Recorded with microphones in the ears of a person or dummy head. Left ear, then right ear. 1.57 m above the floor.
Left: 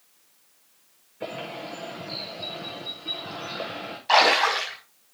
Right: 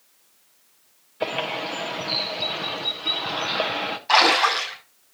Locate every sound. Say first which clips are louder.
1.2 s a bird: right 8 dB; 35° right (ahead or behind), 0.7 m
4.1 s a splash: right 1 dB; 10° left (ahead or behind), 5.5 m